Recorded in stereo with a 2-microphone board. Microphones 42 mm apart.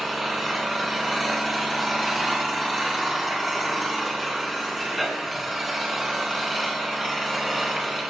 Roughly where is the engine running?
Centre.